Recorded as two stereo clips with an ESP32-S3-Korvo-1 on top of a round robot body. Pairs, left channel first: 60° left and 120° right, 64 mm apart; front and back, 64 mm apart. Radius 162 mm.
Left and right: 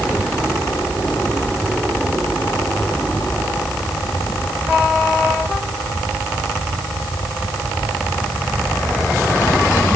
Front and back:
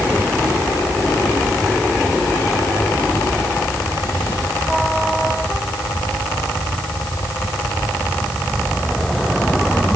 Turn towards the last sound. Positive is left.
No sound to turn to.